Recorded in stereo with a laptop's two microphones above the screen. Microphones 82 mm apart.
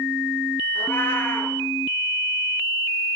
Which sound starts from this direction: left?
A cat meowing, at 0.8 s.